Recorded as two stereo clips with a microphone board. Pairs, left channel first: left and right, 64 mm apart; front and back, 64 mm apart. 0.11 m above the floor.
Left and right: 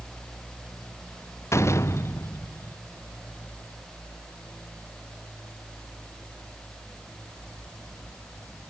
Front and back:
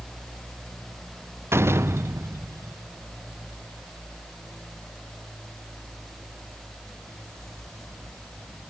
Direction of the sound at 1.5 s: 130° left.